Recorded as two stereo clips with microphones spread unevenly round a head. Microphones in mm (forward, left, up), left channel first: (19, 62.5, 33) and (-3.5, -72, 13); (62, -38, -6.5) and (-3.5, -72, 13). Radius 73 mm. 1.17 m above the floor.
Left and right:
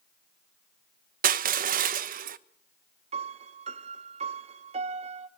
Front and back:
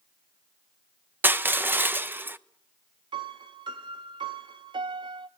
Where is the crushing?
85° right, 0.9 m.